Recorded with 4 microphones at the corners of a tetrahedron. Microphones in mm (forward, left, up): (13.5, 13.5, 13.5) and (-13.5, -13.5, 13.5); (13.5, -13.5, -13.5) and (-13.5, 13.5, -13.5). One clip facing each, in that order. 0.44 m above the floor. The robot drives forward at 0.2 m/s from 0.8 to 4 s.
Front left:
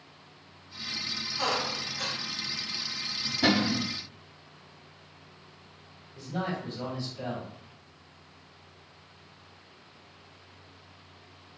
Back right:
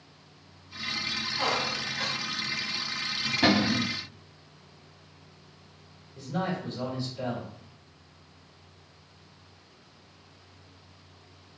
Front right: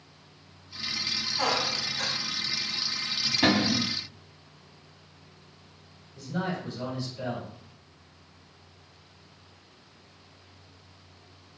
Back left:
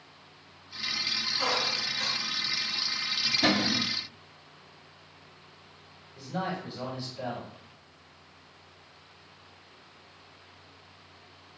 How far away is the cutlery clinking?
No cutlery clinking in this recording.